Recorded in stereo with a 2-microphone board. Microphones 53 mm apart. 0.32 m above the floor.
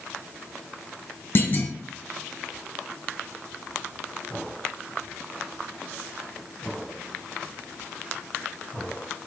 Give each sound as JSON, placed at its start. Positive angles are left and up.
{"t": 1.4, "sound": "a clunk", "side_deg": 45, "distance_m": 1.1}